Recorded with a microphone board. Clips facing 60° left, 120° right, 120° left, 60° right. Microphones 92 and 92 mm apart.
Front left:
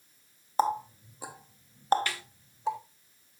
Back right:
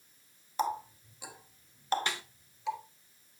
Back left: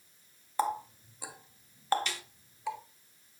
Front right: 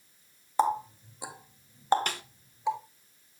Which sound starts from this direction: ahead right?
A snare drum, at 2.1 s.